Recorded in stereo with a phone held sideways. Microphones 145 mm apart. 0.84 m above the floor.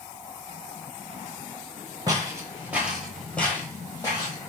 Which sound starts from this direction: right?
Footsteps, at 2.1 s.